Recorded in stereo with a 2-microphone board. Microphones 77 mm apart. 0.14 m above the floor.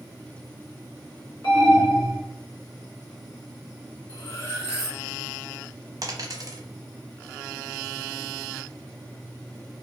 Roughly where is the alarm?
Left.